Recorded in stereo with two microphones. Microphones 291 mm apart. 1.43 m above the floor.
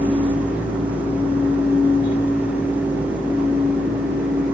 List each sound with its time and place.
Only background noise.